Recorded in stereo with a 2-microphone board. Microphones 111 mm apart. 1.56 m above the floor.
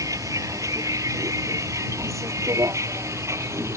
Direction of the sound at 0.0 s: 30° right (ahead or behind).